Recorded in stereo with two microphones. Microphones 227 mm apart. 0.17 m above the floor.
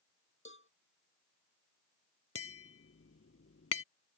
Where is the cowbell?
60° left (ahead or behind).